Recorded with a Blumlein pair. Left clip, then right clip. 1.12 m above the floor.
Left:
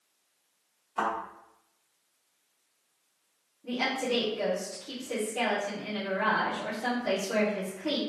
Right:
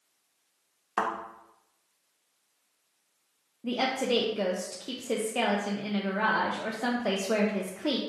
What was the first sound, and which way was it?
A thud, 50° right.